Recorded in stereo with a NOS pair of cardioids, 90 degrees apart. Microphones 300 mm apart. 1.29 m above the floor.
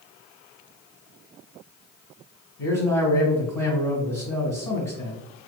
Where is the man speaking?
15° left, 1.3 m.